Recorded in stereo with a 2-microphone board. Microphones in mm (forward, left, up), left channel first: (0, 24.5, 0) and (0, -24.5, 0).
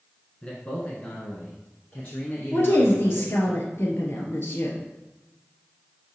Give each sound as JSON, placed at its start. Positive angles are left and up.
{"t": 0.4, "sound": "a man speaking", "side_deg": 25, "distance_m": 1.2}
{"t": 2.5, "sound": "a woman speaking", "side_deg": 55, "distance_m": 1.8}